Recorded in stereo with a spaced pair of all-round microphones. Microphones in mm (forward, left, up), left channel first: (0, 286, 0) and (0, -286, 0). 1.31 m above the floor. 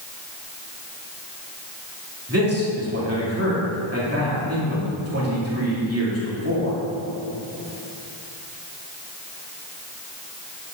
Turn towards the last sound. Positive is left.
turn(degrees=-25)  # may be behind; listen again after turning